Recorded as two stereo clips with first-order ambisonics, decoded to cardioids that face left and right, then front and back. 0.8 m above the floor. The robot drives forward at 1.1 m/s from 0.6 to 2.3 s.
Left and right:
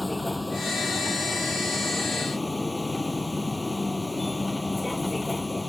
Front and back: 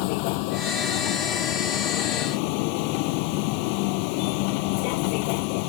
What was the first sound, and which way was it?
A vehicle, 5° left.